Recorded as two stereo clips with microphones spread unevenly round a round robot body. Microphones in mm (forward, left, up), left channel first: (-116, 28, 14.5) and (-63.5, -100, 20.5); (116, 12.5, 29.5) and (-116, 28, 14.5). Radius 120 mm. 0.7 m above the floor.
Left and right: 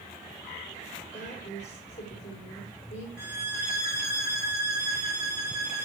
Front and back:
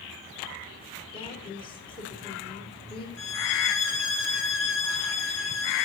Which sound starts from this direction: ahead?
A violin, at 3.2 s.